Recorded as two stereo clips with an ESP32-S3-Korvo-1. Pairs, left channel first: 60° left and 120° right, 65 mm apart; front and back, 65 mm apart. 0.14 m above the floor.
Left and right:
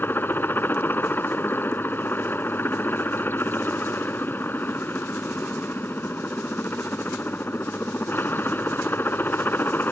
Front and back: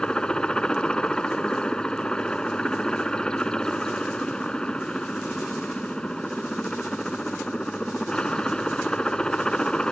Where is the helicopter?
65° left.